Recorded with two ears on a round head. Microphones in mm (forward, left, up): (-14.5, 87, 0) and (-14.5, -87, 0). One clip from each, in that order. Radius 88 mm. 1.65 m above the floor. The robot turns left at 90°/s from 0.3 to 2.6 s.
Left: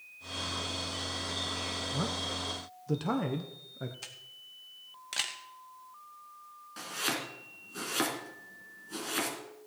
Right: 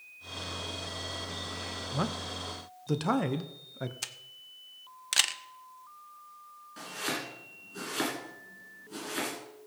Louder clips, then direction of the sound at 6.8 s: Left 1 dB; 20° left (ahead or behind).